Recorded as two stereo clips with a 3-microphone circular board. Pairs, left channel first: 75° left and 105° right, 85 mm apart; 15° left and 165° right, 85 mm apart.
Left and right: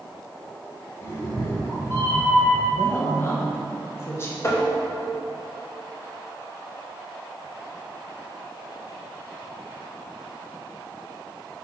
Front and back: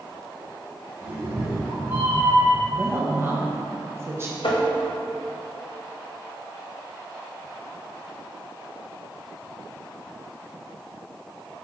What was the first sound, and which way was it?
A cat meowing, 135° left.